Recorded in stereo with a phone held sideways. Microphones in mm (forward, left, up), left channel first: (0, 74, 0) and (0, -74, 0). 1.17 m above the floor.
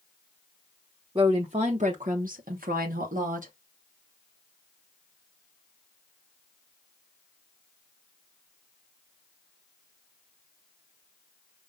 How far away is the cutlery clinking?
No cutlery clinking in this recording.